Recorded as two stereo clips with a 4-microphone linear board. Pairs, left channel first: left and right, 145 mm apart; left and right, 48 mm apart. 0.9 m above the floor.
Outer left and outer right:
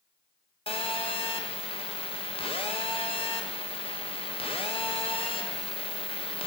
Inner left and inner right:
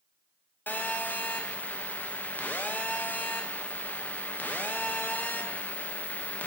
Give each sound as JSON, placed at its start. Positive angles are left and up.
{"t": 0.7, "sound": "a phone buzzing", "side_deg": 40, "distance_m": 0.5}